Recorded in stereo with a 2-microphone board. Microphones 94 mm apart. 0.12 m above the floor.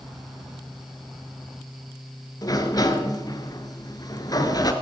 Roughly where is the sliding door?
Left.